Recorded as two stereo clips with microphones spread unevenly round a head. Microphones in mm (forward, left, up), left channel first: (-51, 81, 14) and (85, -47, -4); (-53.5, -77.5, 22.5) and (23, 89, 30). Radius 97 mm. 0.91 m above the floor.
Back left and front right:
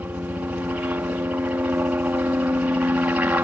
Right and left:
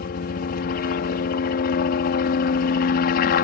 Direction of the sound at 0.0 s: 120° right.